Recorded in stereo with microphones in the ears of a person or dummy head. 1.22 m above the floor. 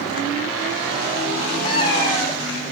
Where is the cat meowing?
30° left (ahead or behind), 3.5 m; by 2.7 s 5° left (ahead or behind), 3.5 m.